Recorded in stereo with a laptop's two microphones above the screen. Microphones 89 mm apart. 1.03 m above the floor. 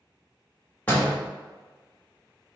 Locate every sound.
0.9 s a door slam: 20° left (ahead or behind), 1.1 m